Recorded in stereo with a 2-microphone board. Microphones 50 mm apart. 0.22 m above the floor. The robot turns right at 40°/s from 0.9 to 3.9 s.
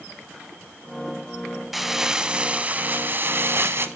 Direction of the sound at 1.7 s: 175° right.